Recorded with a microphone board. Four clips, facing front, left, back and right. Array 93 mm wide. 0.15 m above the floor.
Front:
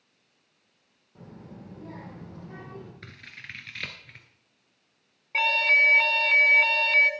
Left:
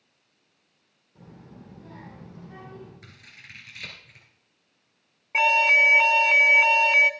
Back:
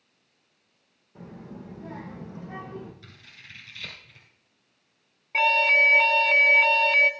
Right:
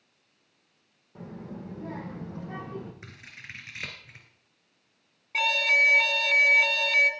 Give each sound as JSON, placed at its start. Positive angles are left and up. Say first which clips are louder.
{"t": 1.1, "sound": "a child speaking", "louder": "right 7 dB, back 4 dB", "azimuth_deg": -105, "distance_m": 6.5}
{"t": 3.0, "sound": "scissors", "louder": "right 3 dB, front 5 dB", "azimuth_deg": -30, "distance_m": 2.5}
{"t": 5.3, "sound": "an alarm", "louder": "left 5 dB, back 2 dB", "azimuth_deg": 100, "distance_m": 1.0}